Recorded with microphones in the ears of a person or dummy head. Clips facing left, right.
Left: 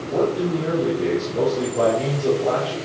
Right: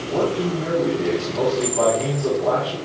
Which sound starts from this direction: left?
A man speaking, at 0.1 s.